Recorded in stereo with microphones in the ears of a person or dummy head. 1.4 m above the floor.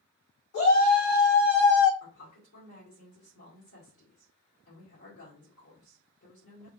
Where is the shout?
70° left (ahead or behind), 1.9 m; by 1.9 s 60° left (ahead or behind), 0.6 m.